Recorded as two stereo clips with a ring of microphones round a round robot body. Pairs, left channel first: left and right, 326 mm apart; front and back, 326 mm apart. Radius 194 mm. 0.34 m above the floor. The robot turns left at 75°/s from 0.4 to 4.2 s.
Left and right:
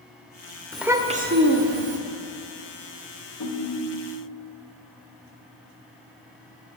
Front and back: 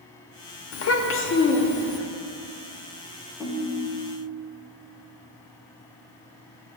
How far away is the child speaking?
About 0.7 m.